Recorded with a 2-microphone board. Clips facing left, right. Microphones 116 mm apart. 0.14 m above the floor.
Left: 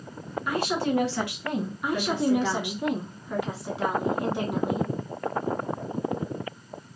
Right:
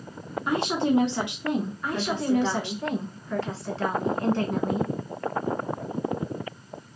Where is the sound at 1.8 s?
15° left (ahead or behind), 1.1 m.